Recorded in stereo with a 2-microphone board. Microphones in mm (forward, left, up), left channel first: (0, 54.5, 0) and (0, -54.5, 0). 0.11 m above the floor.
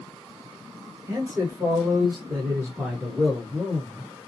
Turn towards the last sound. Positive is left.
turn(degrees=5)  # may be behind; listen again after turning